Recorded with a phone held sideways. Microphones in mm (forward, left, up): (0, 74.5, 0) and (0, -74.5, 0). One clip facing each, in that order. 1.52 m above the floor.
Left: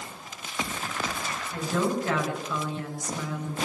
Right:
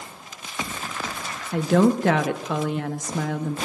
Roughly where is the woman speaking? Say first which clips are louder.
Right 9 dB; right.